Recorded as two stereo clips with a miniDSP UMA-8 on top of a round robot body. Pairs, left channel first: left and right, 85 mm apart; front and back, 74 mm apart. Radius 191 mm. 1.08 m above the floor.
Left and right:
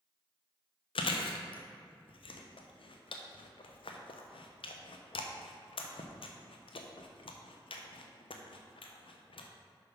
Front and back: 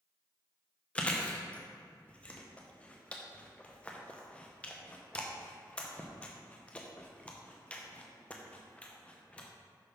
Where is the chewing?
75° left, 0.6 m.